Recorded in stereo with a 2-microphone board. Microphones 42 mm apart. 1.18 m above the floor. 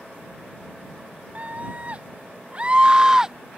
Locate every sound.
1.4 s a scream: 40° right (ahead or behind); by 3.6 s 5° right (ahead or behind)